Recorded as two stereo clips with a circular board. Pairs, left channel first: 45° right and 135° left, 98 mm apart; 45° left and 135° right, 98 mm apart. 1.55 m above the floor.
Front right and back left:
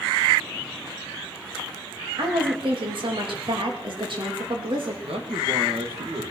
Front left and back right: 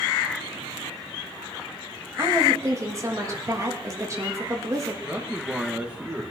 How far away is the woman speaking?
About 2.5 m.